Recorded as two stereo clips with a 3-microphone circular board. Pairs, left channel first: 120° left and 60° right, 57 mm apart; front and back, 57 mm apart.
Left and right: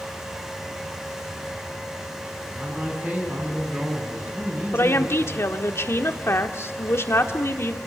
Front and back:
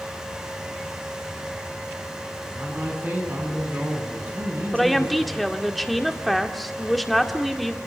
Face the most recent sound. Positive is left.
turn(degrees=90)